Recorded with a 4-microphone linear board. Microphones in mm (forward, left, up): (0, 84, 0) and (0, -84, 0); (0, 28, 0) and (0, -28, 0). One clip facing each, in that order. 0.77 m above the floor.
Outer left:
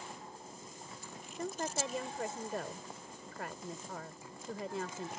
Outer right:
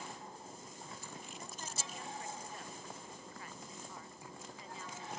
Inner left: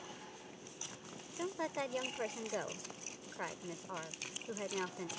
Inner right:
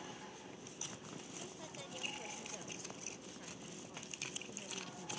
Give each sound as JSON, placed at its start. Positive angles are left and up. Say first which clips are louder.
{"t": 1.4, "sound": "a woman speaking", "louder": "outer left 15 dB, inner left 12 dB", "side_deg": 75}